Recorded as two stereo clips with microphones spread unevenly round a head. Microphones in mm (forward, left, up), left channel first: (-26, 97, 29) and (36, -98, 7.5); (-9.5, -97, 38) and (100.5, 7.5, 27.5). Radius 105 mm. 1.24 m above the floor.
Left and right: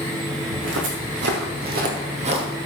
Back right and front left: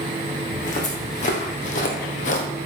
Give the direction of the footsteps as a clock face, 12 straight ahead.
3 o'clock.